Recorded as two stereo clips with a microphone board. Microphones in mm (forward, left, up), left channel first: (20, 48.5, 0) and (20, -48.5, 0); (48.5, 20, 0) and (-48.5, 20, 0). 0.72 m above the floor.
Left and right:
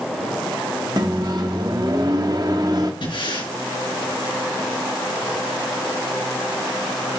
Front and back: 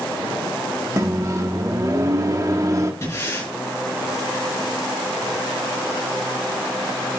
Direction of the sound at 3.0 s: 65° left.